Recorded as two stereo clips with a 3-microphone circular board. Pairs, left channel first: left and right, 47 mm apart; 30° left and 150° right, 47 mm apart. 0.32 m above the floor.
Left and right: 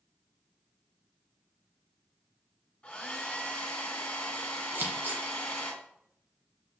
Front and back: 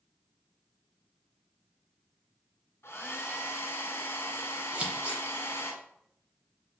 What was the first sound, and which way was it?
A hair dryer, 25° left.